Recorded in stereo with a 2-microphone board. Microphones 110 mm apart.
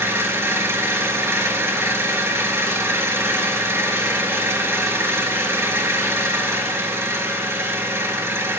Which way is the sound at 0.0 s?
25° right (ahead or behind).